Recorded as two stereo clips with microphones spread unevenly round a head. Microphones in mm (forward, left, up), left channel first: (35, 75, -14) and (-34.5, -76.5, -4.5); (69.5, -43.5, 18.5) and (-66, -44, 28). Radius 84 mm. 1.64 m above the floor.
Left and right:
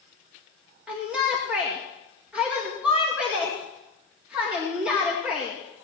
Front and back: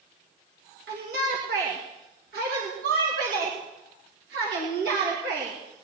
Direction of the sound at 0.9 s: 165° left.